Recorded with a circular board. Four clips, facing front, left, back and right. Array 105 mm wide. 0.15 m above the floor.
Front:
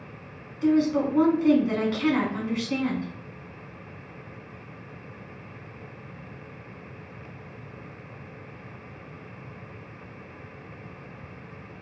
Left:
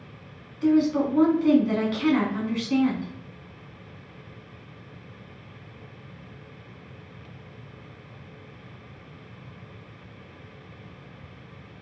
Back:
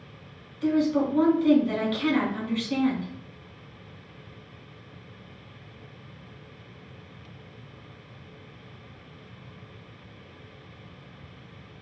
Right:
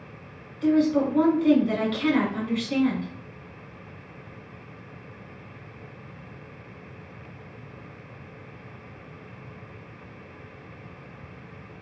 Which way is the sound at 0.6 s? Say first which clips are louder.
Even, front 1 dB; 25° left.